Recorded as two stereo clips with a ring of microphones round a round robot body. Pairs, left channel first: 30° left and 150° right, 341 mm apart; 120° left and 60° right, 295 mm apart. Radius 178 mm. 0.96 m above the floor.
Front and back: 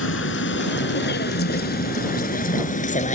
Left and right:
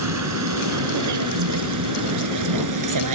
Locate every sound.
0.0 s a vehicle: 25° right; by 3.2 s 40° right